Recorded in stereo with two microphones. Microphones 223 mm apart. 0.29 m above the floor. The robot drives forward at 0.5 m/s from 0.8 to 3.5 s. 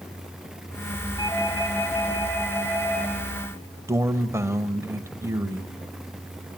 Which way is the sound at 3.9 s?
10° right (ahead or behind).